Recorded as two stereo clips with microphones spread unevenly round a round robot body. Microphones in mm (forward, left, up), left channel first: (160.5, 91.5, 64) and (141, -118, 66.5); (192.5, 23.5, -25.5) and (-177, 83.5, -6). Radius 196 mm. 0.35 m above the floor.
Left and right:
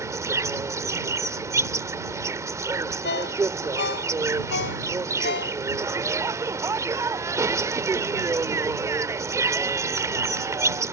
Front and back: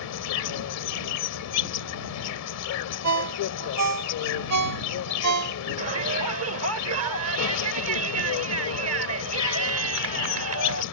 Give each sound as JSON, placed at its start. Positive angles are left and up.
{"t": 0.0, "sound": "an insect", "azimuth_deg": -25}
{"t": 3.0, "sound": "a ringtone", "azimuth_deg": 125}
{"t": 5.8, "sound": "a shout", "azimuth_deg": -165}